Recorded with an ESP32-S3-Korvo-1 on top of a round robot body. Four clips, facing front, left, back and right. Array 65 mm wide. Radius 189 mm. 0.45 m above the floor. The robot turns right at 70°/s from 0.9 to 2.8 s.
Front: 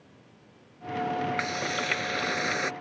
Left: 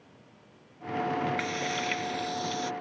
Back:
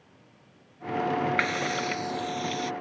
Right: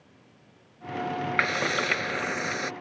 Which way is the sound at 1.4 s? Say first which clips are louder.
Right 6 dB, back 3 dB; 115° right.